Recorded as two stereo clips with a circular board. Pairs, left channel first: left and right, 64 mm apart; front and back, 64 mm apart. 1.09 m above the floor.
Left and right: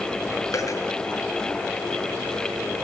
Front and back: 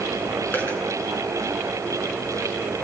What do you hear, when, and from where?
0.5 s a dropped coin: 60° left, 7.5 m